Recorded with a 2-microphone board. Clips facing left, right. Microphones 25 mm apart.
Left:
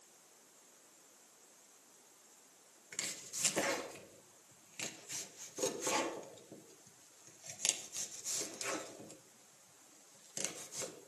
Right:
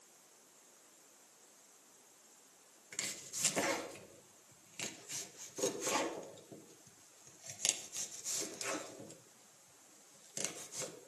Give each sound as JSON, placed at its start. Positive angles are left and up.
{"t": 2.9, "sound": "chopping", "side_deg": 0, "distance_m": 1.2}